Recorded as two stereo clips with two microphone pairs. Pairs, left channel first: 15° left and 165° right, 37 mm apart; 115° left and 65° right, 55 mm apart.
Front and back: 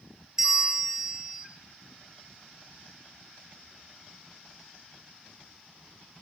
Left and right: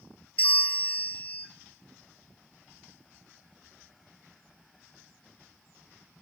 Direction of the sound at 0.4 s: 135° left.